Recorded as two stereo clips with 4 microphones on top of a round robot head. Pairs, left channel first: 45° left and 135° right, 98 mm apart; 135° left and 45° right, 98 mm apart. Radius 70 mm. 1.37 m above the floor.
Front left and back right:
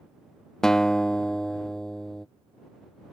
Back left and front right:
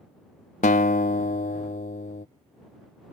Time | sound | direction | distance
0.6 | a guitar | 130° left | ?